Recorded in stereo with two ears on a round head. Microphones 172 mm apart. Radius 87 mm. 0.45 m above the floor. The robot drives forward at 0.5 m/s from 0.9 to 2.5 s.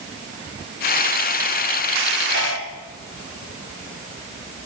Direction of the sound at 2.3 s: 60° left (ahead or behind).